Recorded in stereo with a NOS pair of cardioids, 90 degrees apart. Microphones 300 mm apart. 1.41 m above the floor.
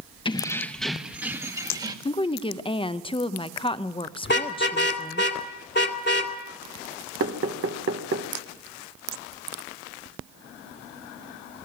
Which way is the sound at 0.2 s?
15° left.